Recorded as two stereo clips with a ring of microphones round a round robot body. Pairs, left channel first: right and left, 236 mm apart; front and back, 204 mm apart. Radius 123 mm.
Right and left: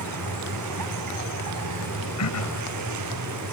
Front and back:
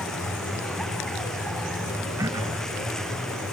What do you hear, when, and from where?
0.0 s a vehicle: 85° left
2.2 s throat clearing: 105° right